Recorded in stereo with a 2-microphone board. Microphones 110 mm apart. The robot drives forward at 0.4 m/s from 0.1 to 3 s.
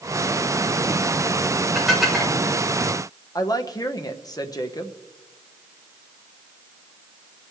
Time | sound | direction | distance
1.8 | dishes clattering | centre (ahead or behind) | 3 m
3.4 | a woman speaking | 35° left (ahead or behind) | 1.0 m